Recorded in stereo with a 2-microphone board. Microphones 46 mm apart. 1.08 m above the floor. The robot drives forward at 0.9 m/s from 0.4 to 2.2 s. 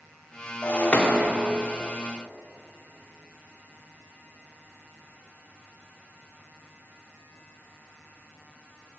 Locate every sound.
0.6 s breaking glass: 45° left (ahead or behind), 1.3 m; by 1.3 s 30° left (ahead or behind), 1.8 m